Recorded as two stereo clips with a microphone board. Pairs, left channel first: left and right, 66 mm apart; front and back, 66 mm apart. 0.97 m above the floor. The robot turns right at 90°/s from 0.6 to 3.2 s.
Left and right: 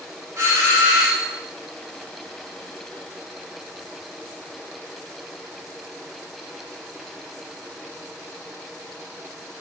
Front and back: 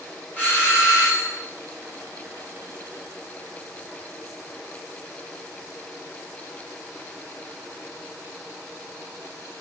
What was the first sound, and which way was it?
A doorbell, 55° right.